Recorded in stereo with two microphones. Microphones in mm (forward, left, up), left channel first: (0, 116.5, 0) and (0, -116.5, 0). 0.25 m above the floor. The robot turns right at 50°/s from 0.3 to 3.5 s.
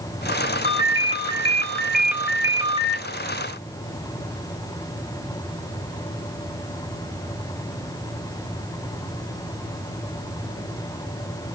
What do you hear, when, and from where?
0.6 s a ringtone: 115° left, 0.8 m; by 3.0 s 125° right, 0.8 m